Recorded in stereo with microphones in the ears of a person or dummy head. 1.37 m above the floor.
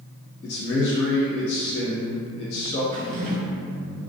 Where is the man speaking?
60° left (ahead or behind), 1.1 m.